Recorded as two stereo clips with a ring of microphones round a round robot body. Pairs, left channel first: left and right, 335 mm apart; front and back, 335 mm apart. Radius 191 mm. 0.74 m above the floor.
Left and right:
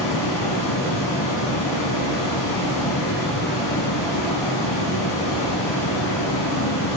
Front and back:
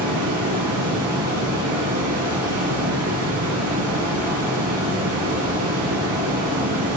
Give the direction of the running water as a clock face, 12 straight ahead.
8 o'clock.